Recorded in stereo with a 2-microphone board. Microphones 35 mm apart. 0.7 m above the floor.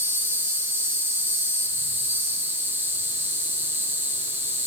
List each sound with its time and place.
0.0 s an insect: 85° right, 1.5 m